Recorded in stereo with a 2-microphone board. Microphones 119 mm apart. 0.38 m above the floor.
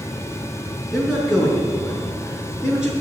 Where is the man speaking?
5° right (ahead or behind), 5.5 m.